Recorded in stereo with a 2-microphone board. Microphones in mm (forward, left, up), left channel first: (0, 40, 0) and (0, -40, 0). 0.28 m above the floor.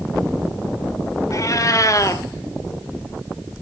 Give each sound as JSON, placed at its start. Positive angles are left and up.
{"t": 1.3, "sound": "a cat meowing", "side_deg": 45, "distance_m": 0.7}